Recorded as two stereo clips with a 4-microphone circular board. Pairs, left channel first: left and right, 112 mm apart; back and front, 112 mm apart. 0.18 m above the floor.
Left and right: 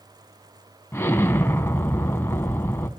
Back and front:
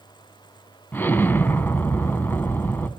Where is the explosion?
130° left, 0.7 m.